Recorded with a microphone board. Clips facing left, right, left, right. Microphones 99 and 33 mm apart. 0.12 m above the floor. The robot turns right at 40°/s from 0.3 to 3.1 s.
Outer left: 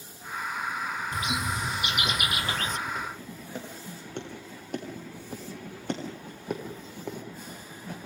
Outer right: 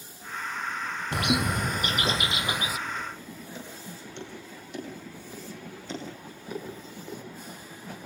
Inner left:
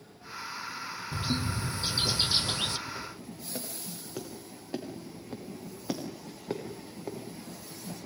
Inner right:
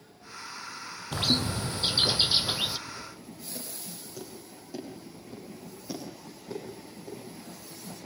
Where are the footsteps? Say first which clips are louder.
Outer left 1 dB, inner left 2 dB; 40° left (ahead or behind), 9 m; by 7.2 s 65° left (ahead or behind), 7.5 m.